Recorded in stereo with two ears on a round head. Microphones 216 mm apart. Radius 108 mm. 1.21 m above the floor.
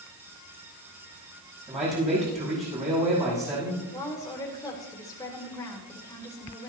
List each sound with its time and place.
1.7 s a man speaking: 25° right (ahead or behind), 9 m
3.9 s a woman speaking: 15° left (ahead or behind), 4.5 m